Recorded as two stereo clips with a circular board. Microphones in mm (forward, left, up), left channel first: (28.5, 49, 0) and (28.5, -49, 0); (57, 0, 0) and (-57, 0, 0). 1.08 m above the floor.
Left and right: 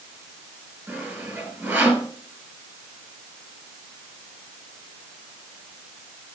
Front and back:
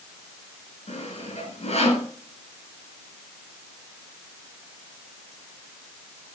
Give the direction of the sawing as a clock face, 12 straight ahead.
12 o'clock.